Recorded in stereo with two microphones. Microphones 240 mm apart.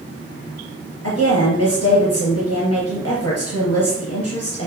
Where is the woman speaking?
75° left (ahead or behind), 3.5 m.